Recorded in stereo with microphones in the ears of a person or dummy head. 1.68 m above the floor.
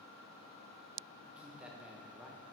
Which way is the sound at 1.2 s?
Centre (ahead or behind).